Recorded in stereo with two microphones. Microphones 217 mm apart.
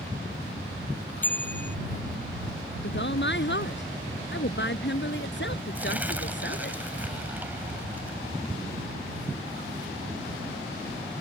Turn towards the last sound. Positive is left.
turn(degrees=-10)  # may be behind; listen again after turning